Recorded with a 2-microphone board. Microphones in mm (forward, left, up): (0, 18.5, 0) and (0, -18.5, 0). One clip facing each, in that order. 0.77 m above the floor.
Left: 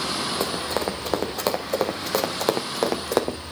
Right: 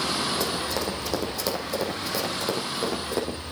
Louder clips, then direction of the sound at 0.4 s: Left 2 dB; 35° left (ahead or behind).